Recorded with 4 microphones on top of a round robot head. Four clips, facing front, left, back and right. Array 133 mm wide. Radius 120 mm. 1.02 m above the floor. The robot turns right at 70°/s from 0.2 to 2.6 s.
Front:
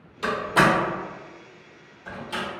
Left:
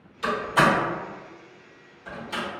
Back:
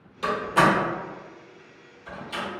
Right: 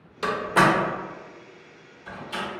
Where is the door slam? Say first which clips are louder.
Right 1 dB, even; 95° right, 1.0 m; by 2.4 s 60° left, 1.0 m.